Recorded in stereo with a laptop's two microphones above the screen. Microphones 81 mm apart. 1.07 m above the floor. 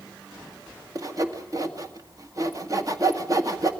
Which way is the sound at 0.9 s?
40° right (ahead or behind).